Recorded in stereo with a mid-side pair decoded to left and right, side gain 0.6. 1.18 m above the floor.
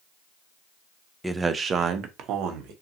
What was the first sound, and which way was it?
A man speaking, 5° right.